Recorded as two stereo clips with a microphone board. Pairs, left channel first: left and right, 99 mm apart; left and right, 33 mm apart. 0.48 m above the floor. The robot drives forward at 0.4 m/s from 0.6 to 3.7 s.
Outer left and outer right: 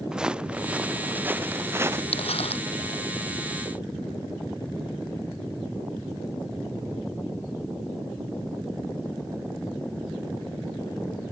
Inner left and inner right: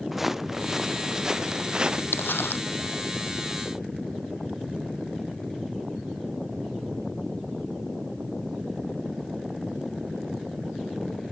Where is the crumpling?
85° left.